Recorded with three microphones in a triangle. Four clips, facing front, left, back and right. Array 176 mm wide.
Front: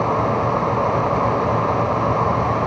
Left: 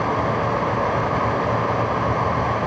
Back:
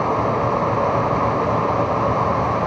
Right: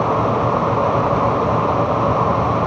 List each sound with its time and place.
Only background noise.